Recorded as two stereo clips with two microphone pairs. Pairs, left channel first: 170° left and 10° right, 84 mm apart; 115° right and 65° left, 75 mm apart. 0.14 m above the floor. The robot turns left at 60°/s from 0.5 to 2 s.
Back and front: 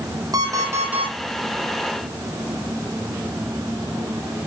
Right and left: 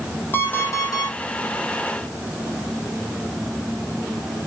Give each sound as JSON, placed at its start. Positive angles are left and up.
{"t": 0.3, "sound": "an alarm clock", "azimuth_deg": -55, "distance_m": 2.5}